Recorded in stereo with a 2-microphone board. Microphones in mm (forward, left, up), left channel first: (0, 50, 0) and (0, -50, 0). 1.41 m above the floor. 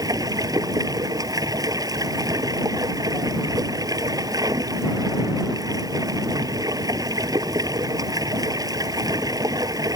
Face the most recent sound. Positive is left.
turn(degrees=-35)  # may be behind; listen again after turning